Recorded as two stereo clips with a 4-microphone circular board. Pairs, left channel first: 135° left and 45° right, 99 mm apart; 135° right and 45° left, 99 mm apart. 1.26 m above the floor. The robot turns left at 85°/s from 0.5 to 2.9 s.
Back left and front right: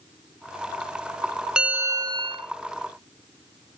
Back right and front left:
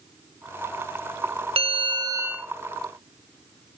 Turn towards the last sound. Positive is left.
turn(degrees=-80)